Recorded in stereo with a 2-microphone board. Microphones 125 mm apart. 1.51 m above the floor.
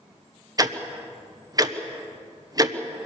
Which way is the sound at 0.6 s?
30° right (ahead or behind).